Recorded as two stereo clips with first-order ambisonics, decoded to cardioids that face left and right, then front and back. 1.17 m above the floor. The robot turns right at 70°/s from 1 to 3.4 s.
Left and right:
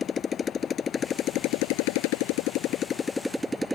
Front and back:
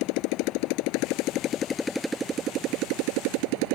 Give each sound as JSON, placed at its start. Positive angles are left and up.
{"t": 0.0, "sound": "a motorcycle", "azimuth_deg": 20}